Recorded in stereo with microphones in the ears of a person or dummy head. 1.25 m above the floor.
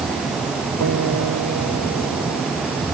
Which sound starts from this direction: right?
A guitar, at 0.8 s.